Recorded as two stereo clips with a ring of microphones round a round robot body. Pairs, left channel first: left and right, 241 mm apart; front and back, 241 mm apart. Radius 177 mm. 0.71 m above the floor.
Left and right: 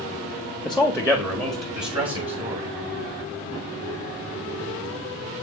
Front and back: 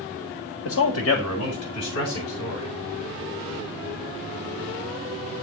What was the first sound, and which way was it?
A man speaking, straight ahead.